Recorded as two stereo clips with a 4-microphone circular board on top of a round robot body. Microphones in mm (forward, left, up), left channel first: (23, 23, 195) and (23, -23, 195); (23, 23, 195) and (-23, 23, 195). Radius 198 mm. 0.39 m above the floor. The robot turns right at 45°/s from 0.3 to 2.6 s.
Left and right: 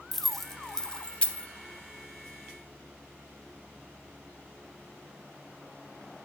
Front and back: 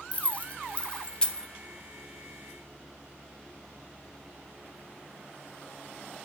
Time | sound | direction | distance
0.1 | keys jangling | 10° left | 0.5 m